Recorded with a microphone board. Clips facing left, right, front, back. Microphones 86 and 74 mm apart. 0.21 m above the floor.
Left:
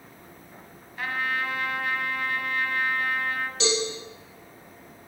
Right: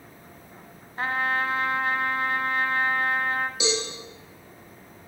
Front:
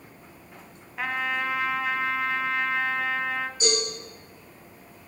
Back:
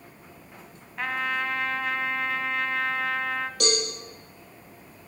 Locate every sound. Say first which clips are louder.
1.0 s a trumpet: right 3 dB, even; 85° right, 0.6 m
3.6 s a cowbell: left 4 dB, even; 170° right, 4.5 m